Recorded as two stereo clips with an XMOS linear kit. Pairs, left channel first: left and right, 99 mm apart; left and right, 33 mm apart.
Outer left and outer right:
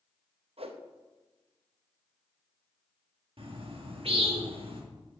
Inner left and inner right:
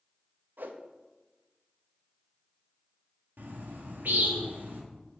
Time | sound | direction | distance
0.6 | a whoosh | 70° right (ahead or behind) | 0.8 m
3.4 | a bird | 65° right (ahead or behind) | 1.6 m